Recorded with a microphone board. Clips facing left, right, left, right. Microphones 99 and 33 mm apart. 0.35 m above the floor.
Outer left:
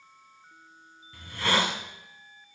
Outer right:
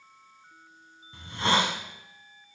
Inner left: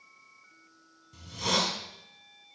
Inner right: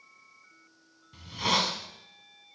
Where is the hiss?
25° right (ahead or behind), 1.4 m.